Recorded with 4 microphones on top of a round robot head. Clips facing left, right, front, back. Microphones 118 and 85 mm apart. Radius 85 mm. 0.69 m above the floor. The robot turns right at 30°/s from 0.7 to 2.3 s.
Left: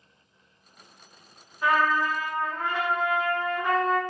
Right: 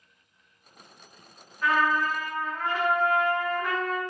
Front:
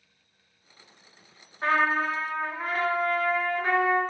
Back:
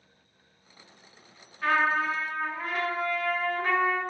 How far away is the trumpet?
About 1.1 m.